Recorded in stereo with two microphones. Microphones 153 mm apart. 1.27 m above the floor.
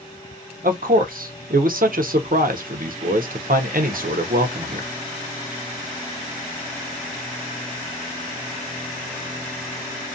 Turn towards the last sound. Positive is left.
turn(degrees=-65)  # may be behind; listen again after turning